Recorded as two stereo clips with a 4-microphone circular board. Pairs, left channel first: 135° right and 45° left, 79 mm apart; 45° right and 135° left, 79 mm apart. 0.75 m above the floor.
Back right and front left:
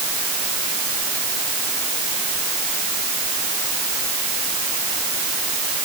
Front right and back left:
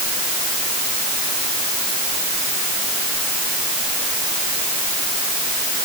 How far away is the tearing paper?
I don't hear tearing paper.